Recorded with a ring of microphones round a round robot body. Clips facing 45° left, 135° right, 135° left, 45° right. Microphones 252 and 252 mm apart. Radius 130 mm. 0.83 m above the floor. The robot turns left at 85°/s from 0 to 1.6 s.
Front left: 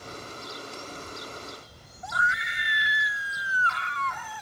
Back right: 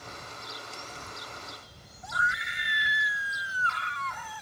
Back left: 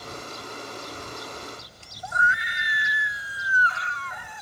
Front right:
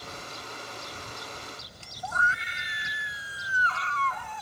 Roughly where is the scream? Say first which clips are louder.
Front left 3 dB, back left 3 dB; ahead left.